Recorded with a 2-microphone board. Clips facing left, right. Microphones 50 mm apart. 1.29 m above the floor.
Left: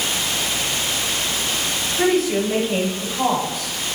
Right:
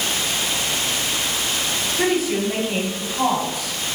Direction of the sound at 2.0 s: Centre (ahead or behind).